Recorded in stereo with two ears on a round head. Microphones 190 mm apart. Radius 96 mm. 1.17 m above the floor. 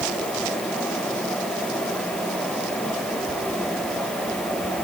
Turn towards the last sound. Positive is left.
No sound to turn to.